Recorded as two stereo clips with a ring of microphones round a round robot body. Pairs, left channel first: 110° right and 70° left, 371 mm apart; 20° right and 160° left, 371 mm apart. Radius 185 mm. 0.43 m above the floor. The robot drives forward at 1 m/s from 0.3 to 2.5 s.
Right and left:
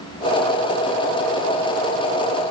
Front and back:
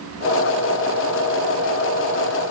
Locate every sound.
Only background noise.